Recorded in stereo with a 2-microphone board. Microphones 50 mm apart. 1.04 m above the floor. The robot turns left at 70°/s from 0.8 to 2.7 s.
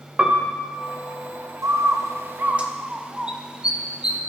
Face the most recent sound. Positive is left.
turn(degrees=-20)  # may be behind; listen again after turning